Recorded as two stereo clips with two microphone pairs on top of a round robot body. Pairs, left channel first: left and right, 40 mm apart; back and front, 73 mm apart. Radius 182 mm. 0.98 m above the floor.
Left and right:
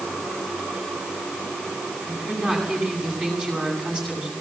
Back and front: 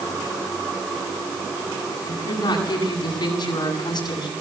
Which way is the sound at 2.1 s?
155° right.